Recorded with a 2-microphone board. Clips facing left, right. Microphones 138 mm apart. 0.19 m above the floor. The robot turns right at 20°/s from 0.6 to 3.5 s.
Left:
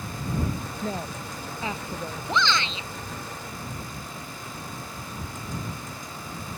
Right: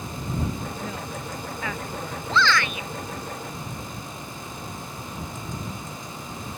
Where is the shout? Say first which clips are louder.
Right 3 dB; 15° left (ahead or behind); by 2.9 s 25° left (ahead or behind).